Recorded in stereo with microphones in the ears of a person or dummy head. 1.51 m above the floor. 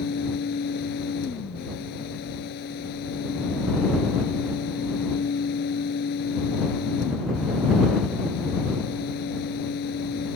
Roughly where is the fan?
Left.